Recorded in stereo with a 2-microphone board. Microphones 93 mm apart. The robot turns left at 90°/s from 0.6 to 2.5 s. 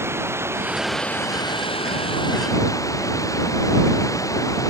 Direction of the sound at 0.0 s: 155° right.